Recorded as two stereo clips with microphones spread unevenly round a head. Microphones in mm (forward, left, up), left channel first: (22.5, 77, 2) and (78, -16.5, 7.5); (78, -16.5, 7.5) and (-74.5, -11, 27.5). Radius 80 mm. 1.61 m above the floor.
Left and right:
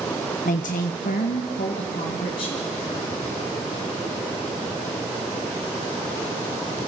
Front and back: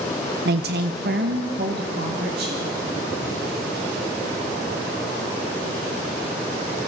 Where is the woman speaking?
145° left, 0.6 m.